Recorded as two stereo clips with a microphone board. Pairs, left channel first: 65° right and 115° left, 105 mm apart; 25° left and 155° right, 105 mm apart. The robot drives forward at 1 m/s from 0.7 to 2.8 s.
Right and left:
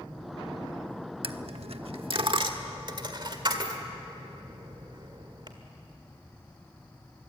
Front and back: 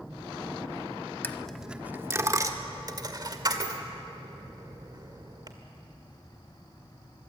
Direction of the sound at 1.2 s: 90° left.